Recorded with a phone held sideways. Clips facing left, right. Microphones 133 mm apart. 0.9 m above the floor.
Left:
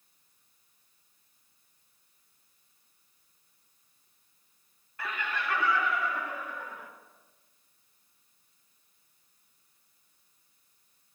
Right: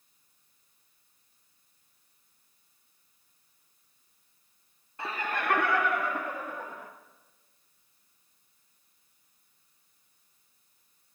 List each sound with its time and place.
5.0 s laughter: 25° right (ahead or behind), 0.7 m; by 6.9 s 40° right (ahead or behind), 1.7 m